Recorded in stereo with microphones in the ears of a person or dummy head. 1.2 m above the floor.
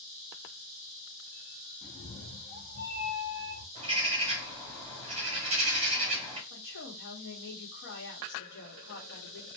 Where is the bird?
30° right (ahead or behind), 1.3 m.